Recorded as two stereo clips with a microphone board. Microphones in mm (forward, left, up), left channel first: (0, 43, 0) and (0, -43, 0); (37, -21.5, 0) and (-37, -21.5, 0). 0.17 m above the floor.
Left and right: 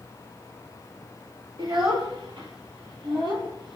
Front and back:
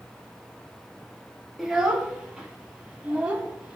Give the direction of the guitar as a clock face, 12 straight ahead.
I don't hear a guitar.